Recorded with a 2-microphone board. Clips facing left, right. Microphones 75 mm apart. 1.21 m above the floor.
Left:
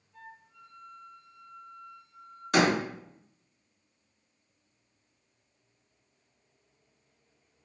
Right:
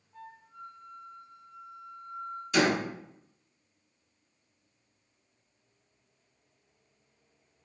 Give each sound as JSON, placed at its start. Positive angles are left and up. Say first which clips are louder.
{"t": 0.1, "sound": "a flute", "louder": "right 3 dB", "side_deg": -45, "distance_m": 2.0}
{"t": 2.5, "sound": "a door slam", "louder": "left 2 dB", "side_deg": 55, "distance_m": 2.0}